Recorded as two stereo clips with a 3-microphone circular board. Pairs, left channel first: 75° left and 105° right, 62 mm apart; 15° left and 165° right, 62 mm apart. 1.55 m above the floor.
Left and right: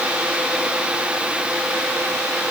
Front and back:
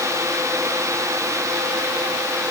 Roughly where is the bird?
I don't hear a bird.